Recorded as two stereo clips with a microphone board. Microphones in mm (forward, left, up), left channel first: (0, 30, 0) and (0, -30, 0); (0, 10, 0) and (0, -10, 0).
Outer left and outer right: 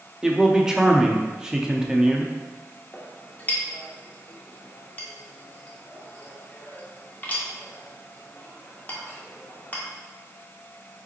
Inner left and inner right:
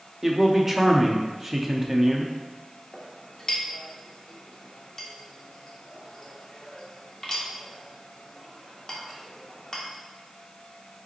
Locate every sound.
0.2 s a man speaking: 10° right (ahead or behind), 0.6 m
2.9 s a clink: 30° left (ahead or behind), 1.0 m